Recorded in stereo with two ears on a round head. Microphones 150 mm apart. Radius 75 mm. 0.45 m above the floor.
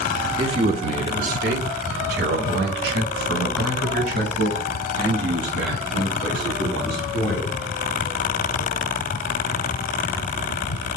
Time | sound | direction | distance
0.4 | a man speaking | 25° right (ahead or behind) | 0.8 m